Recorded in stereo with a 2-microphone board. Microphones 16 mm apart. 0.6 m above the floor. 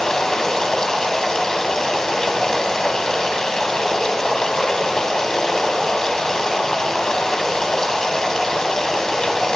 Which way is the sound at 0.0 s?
45° left (ahead or behind).